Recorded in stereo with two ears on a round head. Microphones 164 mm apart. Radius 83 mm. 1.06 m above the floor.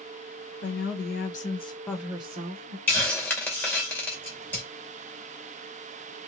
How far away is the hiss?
About 1.2 m.